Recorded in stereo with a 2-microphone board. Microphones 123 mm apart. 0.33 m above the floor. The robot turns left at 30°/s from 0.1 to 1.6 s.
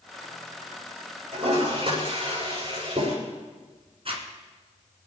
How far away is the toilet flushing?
About 7 m.